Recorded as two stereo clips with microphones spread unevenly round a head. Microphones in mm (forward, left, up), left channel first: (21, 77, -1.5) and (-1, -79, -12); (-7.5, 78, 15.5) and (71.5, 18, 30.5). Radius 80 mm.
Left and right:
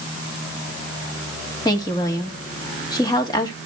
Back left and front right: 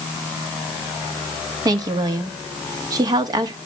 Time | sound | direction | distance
1.6 | a woman speaking | 15° left | 1.8 m